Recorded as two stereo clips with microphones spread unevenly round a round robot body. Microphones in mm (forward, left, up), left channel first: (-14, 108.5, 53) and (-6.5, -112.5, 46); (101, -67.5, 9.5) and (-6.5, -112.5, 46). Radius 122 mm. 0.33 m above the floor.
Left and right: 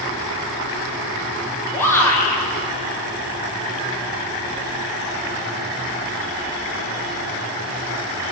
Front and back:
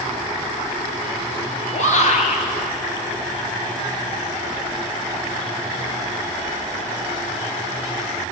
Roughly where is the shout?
Ahead.